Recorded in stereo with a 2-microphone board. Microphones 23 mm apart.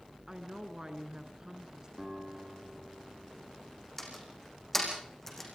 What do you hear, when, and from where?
0.3 s a woman speaking: 30° right (ahead or behind), 3 m
2.0 s a guitar: 10° right (ahead or behind), 6.5 m
4.0 s a door slam: 10° left (ahead or behind), 6 m